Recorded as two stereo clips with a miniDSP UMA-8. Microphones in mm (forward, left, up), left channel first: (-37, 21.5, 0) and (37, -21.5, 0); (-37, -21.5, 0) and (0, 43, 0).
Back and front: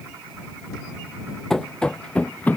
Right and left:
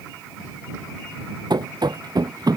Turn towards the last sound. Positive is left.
turn(degrees=80)